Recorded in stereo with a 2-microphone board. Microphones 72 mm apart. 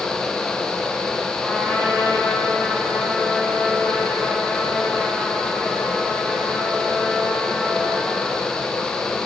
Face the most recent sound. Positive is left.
turn(degrees=-5)  # may be behind; listen again after turning